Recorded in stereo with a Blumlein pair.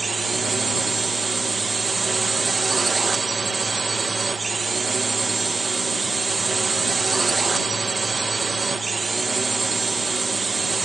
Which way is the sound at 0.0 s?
10° right.